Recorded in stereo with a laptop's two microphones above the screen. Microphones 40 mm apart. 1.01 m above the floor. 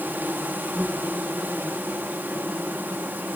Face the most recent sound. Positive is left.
turn(degrees=-55)  # may be behind; listen again after turning